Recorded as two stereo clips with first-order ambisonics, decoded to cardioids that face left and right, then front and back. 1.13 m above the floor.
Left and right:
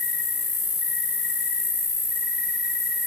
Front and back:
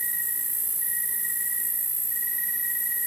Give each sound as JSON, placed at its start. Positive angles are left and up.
{"t": 0.0, "sound": "an insect", "azimuth_deg": 85, "distance_m": 6.0}